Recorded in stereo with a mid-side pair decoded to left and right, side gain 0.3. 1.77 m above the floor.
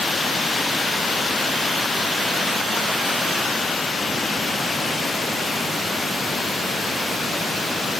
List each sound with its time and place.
Only background noise.